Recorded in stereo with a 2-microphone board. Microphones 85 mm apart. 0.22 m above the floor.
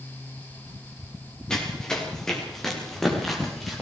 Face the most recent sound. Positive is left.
turn(degrees=0)  # may be behind; listen again after turning